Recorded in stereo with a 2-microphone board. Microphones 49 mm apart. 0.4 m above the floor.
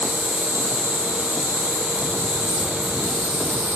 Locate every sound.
0.0 s an insect: 50° left (ahead or behind), 1.0 m